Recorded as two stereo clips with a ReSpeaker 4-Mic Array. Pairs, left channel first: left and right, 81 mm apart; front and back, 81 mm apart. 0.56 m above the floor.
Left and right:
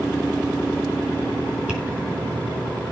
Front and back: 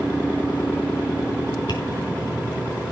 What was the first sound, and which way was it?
Tapping, 10° right.